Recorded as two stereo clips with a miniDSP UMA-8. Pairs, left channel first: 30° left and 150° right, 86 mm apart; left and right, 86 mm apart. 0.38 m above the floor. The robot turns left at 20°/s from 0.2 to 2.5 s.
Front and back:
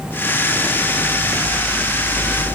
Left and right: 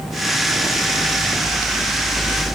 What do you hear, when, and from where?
Only background noise.